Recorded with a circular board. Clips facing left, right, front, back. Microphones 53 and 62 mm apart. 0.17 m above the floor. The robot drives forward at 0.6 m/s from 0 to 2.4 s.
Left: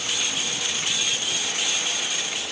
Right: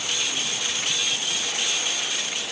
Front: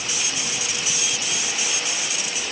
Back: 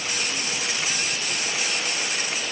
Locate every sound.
Only background noise.